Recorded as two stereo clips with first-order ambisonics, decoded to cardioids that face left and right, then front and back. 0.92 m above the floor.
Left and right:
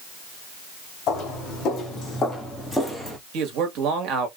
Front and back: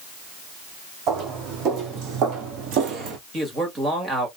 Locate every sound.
1.1 s footsteps: 140° left, 3 m; by 3.2 s 165° right, 1.4 m
3.3 s a man speaking: 105° right, 1.6 m